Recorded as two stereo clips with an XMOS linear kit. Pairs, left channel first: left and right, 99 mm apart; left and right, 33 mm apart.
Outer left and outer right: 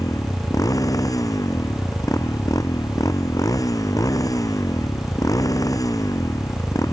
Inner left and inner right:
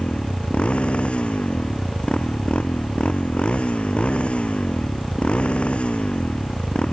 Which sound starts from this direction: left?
A motorcycle, at 0.0 s.